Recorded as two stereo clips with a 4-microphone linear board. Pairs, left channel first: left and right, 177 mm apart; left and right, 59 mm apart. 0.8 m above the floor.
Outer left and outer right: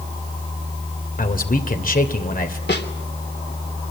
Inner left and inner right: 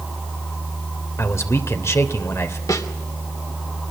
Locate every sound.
1.2 s a man speaking: 50° left (ahead or behind), 3 m
2.7 s a snare drum: 75° left (ahead or behind), 3 m